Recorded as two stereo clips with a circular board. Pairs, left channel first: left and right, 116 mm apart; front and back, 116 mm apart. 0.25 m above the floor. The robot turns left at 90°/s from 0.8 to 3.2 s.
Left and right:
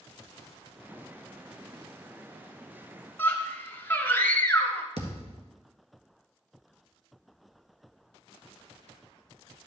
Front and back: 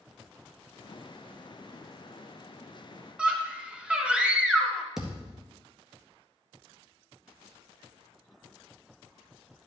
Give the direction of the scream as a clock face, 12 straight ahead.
8 o'clock.